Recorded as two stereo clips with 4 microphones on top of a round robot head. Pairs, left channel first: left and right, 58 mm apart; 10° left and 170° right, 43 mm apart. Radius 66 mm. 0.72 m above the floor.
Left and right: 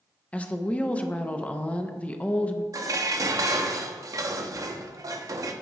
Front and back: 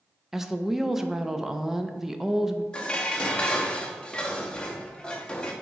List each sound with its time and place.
0.3 s a woman speaking: 120° left, 0.7 m
2.7 s dishes clattering: 60° right, 0.7 m